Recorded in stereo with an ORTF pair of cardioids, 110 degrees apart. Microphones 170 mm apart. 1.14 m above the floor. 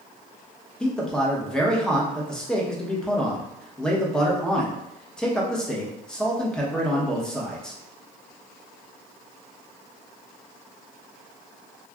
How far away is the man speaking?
About 0.9 m.